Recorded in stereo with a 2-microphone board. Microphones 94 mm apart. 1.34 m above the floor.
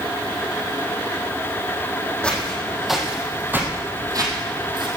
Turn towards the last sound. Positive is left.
turn(degrees=-60)  # may be behind; listen again after turning